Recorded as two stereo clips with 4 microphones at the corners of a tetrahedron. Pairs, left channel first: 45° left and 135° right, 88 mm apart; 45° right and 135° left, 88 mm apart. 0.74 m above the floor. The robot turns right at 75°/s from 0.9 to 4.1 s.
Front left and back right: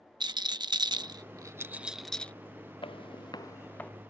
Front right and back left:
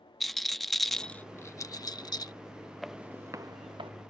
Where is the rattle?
130° right; by 2.3 s 25° right.